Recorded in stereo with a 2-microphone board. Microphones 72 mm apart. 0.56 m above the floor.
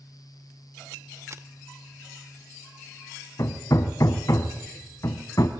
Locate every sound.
1.3 s a camera shutter: 45° right (ahead or behind), 0.7 m
3.4 s hammering: 55° left (ahead or behind), 1.5 m